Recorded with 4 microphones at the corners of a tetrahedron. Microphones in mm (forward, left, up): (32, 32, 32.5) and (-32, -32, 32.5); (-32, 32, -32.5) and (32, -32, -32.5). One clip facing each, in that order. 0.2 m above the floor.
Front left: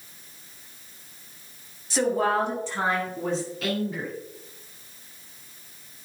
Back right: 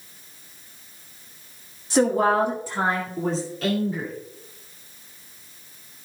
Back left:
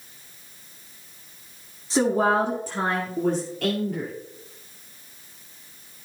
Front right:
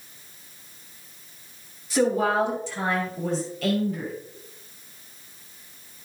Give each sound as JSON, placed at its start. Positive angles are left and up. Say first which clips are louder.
{"t": 1.9, "sound": "a woman speaking", "louder": "back right 4 dB, back left 1 dB", "azimuth_deg": 175, "distance_m": 1.4}